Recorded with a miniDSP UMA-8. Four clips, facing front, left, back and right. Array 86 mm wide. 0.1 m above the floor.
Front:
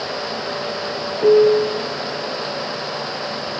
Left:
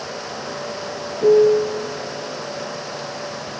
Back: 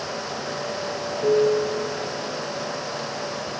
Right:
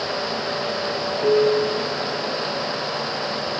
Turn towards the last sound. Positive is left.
turn(degrees=40)